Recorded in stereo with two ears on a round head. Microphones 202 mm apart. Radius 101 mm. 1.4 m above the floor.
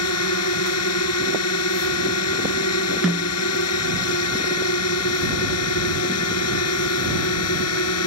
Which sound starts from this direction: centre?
A snare drum, at 3.0 s.